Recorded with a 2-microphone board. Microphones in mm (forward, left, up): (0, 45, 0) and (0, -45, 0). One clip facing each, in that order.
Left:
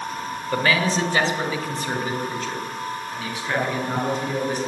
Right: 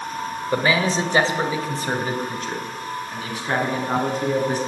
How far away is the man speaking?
About 1.8 m.